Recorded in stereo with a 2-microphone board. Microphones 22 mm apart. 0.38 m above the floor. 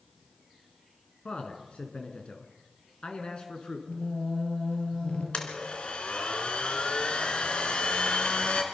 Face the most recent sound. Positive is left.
turn(degrees=55)  # may be behind; listen again after turning